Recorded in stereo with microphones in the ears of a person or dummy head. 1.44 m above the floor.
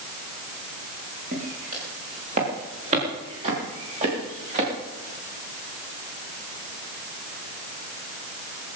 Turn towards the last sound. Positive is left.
turn(degrees=-35)  # may be behind; listen again after turning